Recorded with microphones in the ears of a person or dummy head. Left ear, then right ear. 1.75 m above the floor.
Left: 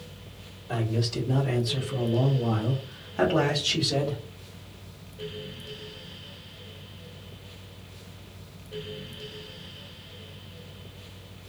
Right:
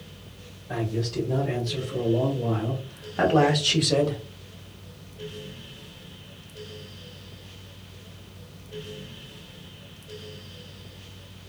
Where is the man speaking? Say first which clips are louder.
Even; 65° left (ahead or behind), 1.3 m; by 4.2 s 40° right (ahead or behind), 0.9 m.